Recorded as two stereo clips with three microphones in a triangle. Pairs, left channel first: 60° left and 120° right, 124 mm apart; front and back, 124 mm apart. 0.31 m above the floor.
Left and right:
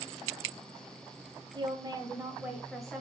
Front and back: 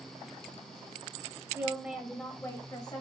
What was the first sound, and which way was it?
A woman speaking, 120° right.